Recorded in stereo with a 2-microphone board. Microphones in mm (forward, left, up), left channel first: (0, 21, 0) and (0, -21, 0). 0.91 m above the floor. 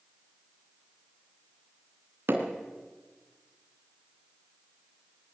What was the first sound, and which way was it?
Hammering, 60° right (ahead or behind).